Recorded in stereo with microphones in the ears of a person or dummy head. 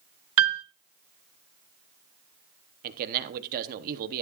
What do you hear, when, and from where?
0.4 s a piano: 80° right, 0.5 m
2.8 s a man speaking: 45° right (ahead or behind), 0.9 m